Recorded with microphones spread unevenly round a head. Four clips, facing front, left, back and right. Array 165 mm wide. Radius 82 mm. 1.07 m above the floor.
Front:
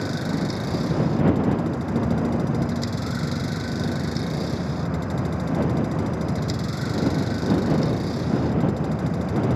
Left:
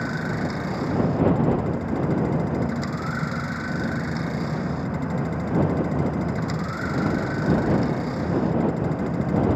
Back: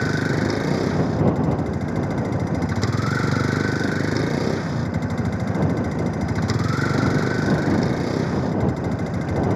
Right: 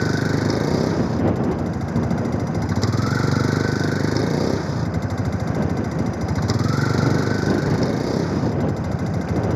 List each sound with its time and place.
0.0 s a vehicle: 125° right